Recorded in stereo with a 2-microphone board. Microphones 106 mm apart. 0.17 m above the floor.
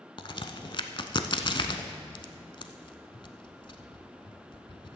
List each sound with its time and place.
0.2 s a crack: 50° left (ahead or behind), 0.6 m